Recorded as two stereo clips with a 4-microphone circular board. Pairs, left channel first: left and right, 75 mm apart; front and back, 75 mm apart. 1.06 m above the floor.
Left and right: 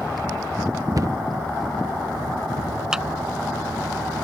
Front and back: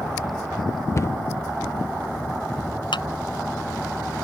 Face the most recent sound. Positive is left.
turn(degrees=-10)